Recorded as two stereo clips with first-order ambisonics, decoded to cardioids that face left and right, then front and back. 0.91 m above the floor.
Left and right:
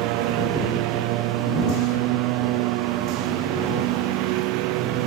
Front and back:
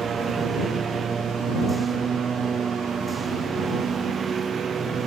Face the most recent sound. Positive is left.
turn(degrees=-110)